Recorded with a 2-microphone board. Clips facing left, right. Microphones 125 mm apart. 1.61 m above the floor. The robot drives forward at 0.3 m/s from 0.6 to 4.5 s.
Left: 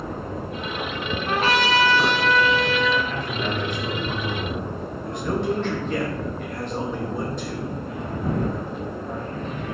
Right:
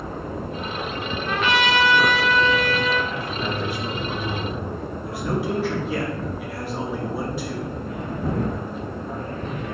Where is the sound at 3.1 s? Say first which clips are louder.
Left 1 dB; 10° right (ahead or behind), 1.9 m; by 4.6 s 5° right (ahead or behind), 2.5 m.